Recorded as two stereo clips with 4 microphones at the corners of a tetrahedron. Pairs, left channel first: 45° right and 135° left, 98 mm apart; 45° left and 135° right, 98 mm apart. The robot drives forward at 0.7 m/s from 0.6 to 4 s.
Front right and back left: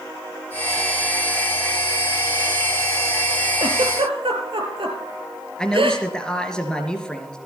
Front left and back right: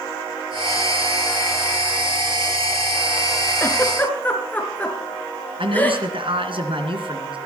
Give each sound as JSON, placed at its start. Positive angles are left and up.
{"t": 3.6, "sound": "a giggle", "azimuth_deg": 110, "distance_m": 3.0}
{"t": 5.6, "sound": "a man speaking", "azimuth_deg": -125, "distance_m": 2.5}